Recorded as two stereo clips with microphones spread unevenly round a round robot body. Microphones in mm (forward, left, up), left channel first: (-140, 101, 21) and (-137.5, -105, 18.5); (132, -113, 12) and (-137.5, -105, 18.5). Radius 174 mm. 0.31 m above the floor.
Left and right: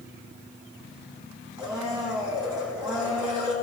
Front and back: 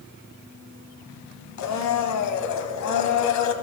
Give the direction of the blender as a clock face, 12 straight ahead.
12 o'clock.